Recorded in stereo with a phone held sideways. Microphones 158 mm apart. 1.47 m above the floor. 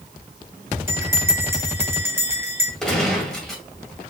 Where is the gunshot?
5° left (ahead or behind), 2 m.